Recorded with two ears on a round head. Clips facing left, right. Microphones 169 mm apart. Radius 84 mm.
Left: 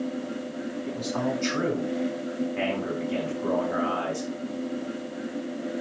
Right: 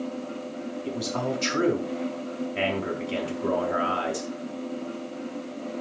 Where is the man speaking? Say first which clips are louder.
Even; 45° right (ahead or behind), 4.5 m.